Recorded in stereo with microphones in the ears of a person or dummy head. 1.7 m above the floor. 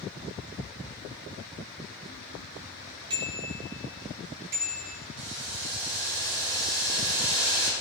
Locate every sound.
3.1 s a bicycle bell: 30° right (ahead or behind), 4.5 m; by 5.0 s 15° right (ahead or behind), 4.5 m
5.2 s boiling: 85° right, 5.5 m